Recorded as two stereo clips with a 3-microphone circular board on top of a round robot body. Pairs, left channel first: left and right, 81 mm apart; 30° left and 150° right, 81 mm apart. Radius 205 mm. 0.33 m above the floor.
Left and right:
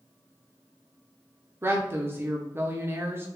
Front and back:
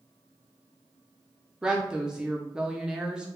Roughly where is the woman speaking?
Right.